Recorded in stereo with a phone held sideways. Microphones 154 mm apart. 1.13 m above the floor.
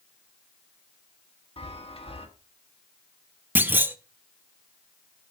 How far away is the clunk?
About 0.7 m.